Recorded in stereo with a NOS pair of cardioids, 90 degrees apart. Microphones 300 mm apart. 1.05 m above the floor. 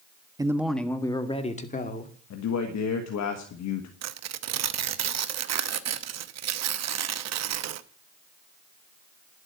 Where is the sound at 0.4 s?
10° right, 1.5 m; by 2.1 s 30° left, 3 m.